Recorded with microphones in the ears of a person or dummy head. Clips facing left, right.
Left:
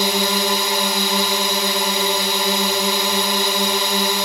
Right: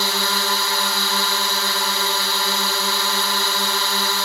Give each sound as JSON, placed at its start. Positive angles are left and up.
{"t": 0.0, "sound": "a drone", "side_deg": 15}